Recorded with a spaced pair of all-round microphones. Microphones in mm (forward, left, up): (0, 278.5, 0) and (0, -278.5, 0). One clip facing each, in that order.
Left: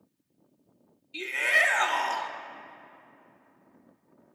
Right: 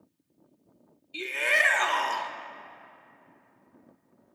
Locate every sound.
1.1 s a shout: 5° left (ahead or behind), 0.6 m